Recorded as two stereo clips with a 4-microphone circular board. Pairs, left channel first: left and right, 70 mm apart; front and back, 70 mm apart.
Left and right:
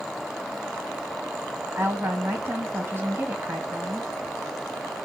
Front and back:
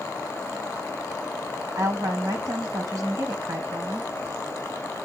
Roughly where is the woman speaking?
Behind right.